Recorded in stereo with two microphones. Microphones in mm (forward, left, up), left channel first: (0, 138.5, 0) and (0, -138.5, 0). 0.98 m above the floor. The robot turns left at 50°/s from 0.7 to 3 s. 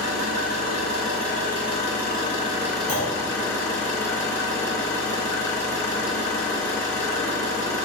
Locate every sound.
0.0 s an engine running: 75° right, 1.3 m; by 7.9 s 170° left, 1.3 m
2.9 s a clunk: 65° right (ahead or behind), 1.0 m